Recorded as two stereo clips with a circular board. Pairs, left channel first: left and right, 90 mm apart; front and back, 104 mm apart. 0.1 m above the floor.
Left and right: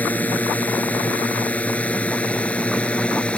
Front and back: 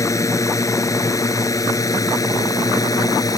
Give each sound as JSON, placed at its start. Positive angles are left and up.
{"t": 0.0, "sound": "a drone", "azimuth_deg": 30}